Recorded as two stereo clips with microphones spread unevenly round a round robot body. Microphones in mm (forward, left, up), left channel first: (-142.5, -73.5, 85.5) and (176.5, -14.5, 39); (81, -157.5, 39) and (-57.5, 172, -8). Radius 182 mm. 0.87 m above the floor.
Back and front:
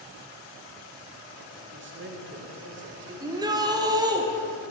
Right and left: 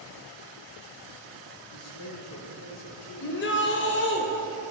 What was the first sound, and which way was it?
A man speaking, 25° right.